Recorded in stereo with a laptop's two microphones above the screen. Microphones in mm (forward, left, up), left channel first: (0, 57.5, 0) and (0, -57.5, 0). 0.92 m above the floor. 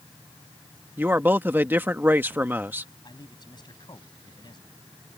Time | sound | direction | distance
1.0 | a man speaking | 15° right (ahead or behind) | ?
3.0 | a man speaking | 40° left (ahead or behind) | ?